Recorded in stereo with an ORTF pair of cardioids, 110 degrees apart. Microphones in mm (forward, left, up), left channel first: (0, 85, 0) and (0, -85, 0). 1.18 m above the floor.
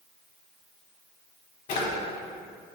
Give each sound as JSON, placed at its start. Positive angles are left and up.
{"t": 1.7, "sound": "a drawer", "azimuth_deg": 65, "distance_m": 0.7}